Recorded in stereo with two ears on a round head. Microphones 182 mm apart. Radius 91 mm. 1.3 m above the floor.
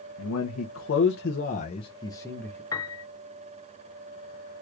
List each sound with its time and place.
0.2 s a man speaking: 80° left, 0.8 m; by 2.6 s 5° left (ahead or behind), 1.0 m
2.7 s a piano: 20° left (ahead or behind), 0.5 m